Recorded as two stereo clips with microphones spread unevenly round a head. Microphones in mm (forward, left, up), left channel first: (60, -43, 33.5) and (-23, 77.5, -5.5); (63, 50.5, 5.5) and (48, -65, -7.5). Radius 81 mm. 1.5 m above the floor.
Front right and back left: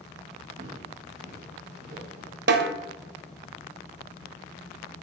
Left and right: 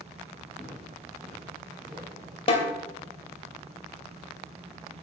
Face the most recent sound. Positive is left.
turn(degrees=115)